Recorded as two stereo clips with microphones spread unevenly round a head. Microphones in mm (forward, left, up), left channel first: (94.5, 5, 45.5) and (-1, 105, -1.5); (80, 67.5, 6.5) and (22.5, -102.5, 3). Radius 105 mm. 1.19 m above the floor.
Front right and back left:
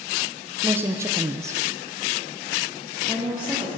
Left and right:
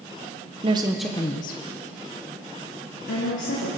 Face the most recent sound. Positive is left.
turn(degrees=55)